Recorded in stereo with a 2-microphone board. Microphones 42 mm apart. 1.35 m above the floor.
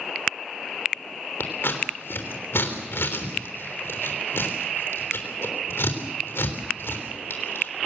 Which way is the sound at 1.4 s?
80° left.